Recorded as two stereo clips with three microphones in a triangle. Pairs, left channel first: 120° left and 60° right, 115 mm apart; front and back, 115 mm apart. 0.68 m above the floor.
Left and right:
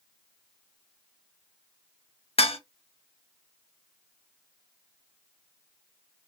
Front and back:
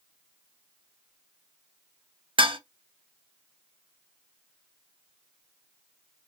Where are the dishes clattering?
145° left, 0.7 m.